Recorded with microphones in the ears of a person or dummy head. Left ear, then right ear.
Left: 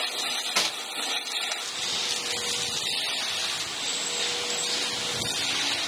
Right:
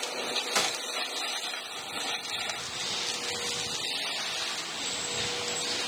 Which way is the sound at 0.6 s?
50° right (ahead or behind).